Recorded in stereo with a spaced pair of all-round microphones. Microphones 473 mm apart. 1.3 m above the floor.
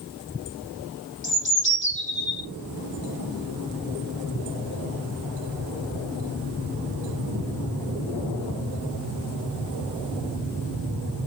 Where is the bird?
25° left (ahead or behind), 2.5 m.